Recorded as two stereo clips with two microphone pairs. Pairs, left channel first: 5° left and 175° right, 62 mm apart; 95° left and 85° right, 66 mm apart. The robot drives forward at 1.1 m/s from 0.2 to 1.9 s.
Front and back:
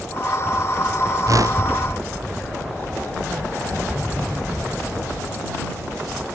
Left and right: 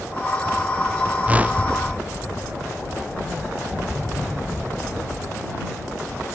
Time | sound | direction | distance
1.3 | a whoosh | 155° right | ?